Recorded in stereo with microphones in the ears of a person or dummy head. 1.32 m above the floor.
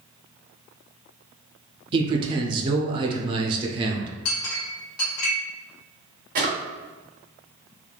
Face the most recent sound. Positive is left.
turn(degrees=-35)  # may be behind; listen again after turning